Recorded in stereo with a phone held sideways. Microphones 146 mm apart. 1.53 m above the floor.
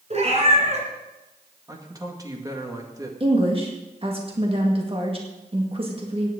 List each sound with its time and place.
0.1 s a cat meowing: 50° right (ahead or behind), 2.5 m
1.7 s a man speaking: 25° right (ahead or behind), 1.9 m
3.2 s a woman speaking: 40° right (ahead or behind), 1.9 m